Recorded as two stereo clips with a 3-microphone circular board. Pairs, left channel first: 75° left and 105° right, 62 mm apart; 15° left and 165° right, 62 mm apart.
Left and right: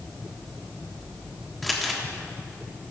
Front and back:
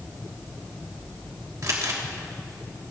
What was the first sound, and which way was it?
Crumpling, 165° left.